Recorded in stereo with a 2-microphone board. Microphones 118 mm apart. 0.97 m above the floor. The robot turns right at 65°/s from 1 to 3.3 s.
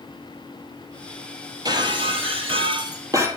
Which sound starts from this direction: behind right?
Breaking glass, at 1.6 s.